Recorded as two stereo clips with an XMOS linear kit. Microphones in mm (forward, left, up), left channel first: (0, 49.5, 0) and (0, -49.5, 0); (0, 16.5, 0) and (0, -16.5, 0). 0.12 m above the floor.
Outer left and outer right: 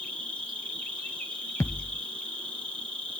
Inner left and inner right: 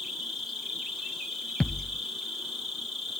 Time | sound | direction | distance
0.0 | an insect | 10° left (ahead or behind) | 1.3 m
1.6 | a thud | 30° left (ahead or behind) | 0.8 m